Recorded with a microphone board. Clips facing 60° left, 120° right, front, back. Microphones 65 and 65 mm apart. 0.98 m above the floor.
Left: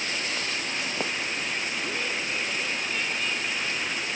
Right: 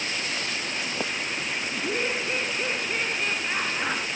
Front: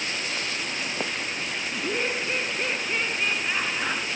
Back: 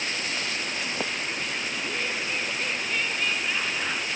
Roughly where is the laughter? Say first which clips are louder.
Right 3 dB, front 3 dB; ahead right.